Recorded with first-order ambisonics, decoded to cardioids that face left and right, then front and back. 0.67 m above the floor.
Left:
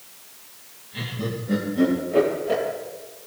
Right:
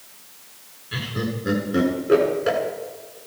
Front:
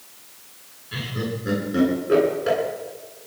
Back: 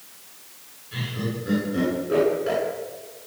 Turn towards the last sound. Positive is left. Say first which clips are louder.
# right 2 dB, front 2 dB
turn(degrees=-65)